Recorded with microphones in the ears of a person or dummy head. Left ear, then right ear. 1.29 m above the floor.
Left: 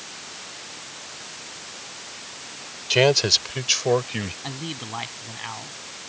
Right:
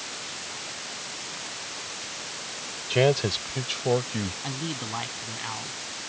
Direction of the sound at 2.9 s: 40° left (ahead or behind).